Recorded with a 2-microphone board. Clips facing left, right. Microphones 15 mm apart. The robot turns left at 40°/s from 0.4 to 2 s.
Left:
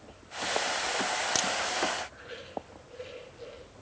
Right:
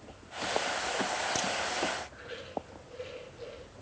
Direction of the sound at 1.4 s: 40° left (ahead or behind).